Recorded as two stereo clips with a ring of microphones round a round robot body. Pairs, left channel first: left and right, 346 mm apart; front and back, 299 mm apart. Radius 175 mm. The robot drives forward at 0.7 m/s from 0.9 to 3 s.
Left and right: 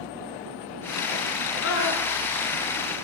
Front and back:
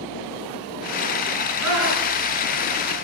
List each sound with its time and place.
1.6 s a scream: 145° left, 8 m